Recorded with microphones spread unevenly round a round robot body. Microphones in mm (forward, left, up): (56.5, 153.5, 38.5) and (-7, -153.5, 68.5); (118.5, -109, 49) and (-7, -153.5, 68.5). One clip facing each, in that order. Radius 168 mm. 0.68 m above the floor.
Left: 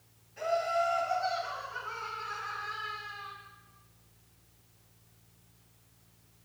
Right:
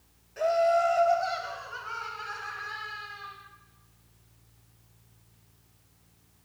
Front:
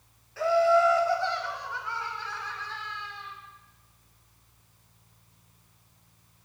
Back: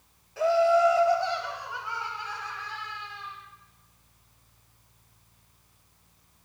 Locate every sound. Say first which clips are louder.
0.4 s laughter: right 7 dB, back 1 dB; 90° right, 3 m; by 3.3 s 85° right, 5 m